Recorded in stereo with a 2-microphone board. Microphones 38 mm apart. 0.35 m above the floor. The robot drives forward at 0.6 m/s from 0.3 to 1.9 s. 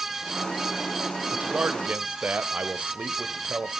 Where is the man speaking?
40° right (ahead or behind), 1.0 m.